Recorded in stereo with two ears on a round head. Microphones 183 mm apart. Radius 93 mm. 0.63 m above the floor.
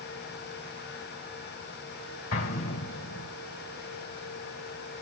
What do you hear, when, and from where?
2.3 s an explosion: 75° left (ahead or behind), 2.5 m